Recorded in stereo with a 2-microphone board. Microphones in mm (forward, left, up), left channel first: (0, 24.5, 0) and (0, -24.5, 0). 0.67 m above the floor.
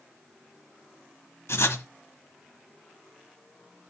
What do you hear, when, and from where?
1.5 s writing: 70° left (ahead or behind), 1.0 m